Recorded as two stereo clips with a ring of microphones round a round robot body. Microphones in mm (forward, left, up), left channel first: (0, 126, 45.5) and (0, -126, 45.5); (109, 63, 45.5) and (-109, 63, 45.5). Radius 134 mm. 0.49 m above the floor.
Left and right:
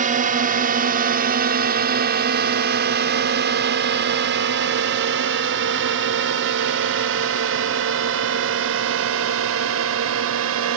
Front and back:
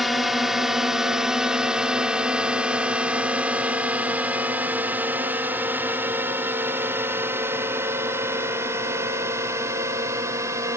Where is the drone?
90° right; by 10.8 s 105° right.